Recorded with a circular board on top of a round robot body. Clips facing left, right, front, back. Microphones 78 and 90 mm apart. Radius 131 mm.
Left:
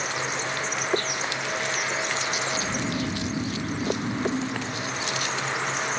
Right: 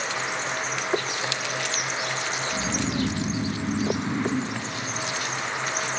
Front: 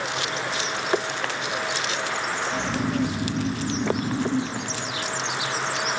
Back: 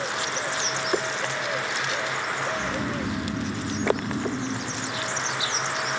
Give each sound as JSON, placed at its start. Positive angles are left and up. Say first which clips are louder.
{"t": 2.5, "sound": "snoring", "louder": "right 1 dB, front 3 dB", "azimuth_deg": -45, "distance_m": 5.0}